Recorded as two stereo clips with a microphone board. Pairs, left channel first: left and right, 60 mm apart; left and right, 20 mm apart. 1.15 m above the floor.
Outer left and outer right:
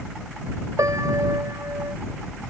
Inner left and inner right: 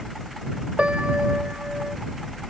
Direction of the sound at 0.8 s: 70° right (ahead or behind).